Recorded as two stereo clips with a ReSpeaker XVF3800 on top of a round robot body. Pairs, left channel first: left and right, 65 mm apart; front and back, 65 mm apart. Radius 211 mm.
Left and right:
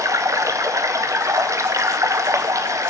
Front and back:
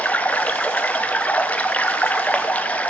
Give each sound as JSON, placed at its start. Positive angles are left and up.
{"t": 0.0, "sound": "running water", "azimuth_deg": -65, "distance_m": 0.8}